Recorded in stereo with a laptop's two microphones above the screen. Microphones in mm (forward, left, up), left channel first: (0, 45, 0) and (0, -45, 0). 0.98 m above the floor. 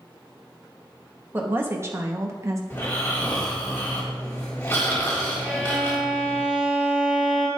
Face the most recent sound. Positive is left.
turn(degrees=-10)  # may be behind; listen again after turning